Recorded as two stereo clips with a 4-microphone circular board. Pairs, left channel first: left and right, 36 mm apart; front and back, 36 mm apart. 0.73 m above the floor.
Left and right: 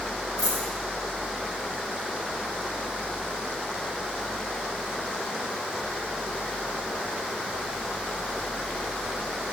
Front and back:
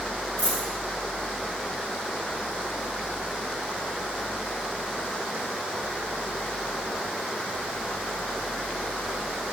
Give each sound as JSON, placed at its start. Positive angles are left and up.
{"t": 0.4, "sound": "a dropped coin", "azimuth_deg": 160, "distance_m": 4.0}